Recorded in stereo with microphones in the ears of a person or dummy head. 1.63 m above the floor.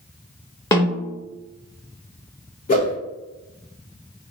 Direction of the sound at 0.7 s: 20° left (ahead or behind).